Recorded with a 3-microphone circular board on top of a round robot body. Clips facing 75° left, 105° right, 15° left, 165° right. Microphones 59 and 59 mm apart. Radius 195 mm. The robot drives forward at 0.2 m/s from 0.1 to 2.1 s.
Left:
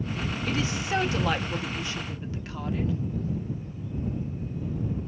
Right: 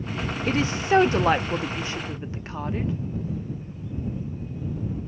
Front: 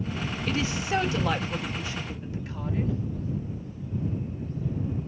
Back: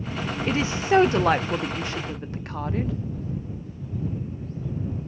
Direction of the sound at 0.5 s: 115° right.